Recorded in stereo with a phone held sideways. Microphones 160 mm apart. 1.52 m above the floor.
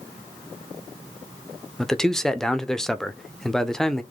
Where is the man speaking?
5° left (ahead or behind), 0.5 m.